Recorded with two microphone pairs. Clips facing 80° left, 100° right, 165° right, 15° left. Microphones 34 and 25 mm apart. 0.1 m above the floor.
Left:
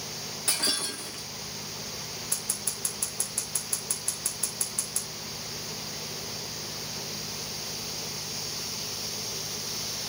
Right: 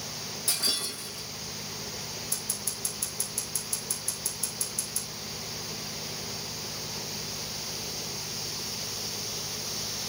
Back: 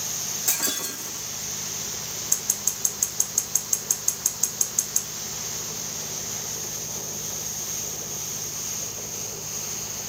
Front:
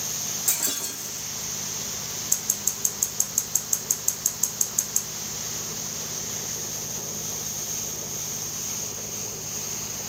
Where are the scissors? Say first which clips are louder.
Left 1 dB, back 1 dB; 120° left, 4 m.